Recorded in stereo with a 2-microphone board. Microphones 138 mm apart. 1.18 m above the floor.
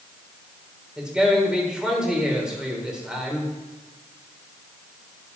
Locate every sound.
1.0 s a man speaking: 5° right (ahead or behind), 4.5 m